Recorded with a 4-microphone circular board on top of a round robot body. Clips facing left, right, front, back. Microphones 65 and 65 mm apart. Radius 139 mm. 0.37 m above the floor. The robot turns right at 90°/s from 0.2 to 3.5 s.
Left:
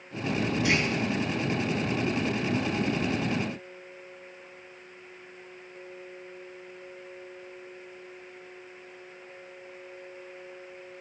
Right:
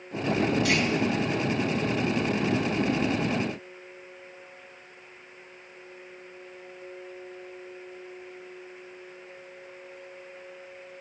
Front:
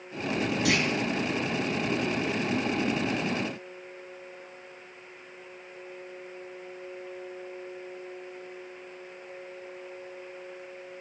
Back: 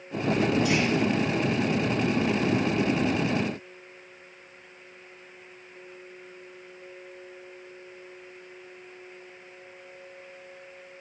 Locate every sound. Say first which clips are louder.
0.7 s a clunk: right 1 dB, back 1 dB; 20° left, 3.5 m; by 0.9 s 40° left, 3.5 m